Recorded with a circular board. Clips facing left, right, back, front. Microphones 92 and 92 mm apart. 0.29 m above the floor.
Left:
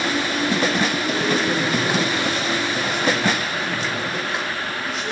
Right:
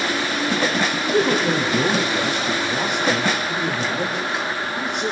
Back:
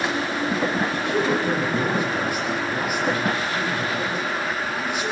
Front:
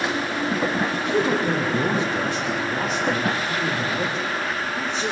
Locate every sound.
0.9 s a man speaking: 70° right, 9.5 m; by 5.1 s 60° right, 11.5 m